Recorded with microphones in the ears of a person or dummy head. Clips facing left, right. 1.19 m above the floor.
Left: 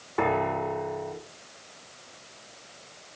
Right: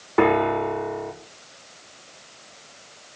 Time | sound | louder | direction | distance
0.2 | a piano | right 7 dB | 70° right (ahead or behind) | 3.5 m